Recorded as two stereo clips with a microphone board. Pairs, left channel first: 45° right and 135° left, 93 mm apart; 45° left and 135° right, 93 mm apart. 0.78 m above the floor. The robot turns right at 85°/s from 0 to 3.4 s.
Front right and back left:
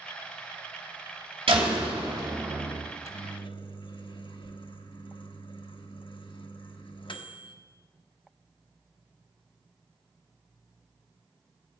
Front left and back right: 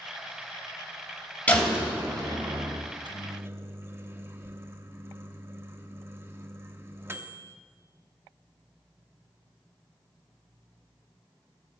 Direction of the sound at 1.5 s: 120° left.